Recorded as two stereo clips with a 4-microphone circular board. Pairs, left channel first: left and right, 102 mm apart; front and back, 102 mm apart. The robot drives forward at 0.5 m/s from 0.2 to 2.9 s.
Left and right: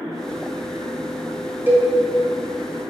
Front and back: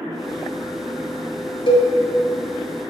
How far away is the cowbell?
About 0.6 m.